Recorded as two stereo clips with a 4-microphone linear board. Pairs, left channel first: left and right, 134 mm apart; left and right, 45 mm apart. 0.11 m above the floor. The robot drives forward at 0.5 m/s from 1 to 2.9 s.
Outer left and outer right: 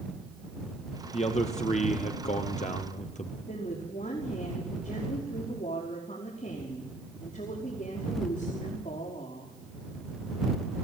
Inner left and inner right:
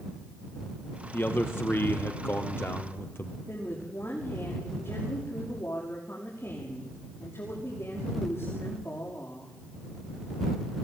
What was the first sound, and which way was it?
A man speaking, 55° left (ahead or behind).